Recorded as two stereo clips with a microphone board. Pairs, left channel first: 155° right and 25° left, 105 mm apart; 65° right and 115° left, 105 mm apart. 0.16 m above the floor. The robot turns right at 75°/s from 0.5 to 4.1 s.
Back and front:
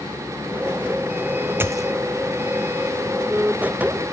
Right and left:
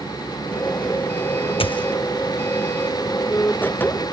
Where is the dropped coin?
45° right, 0.6 m; by 1.9 s 20° right, 0.6 m.